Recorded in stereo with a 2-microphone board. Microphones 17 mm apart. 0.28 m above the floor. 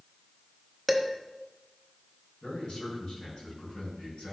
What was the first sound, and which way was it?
Dishes clattering, 10° left (ahead or behind).